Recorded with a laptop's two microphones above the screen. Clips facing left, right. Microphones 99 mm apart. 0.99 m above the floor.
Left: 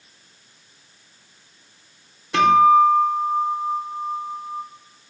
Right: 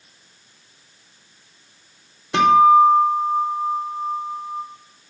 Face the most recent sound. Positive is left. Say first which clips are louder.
# right 1 dB
turn(degrees=-25)  # may be behind; listen again after turning